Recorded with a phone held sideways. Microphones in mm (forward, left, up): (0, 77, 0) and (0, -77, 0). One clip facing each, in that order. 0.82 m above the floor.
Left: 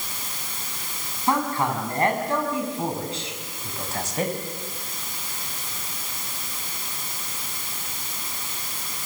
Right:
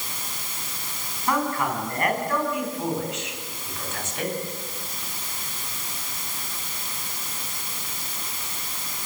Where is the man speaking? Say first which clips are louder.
Left 1 dB; 25° left (ahead or behind), 8 m; by 4.3 s 40° left (ahead or behind), 6 m.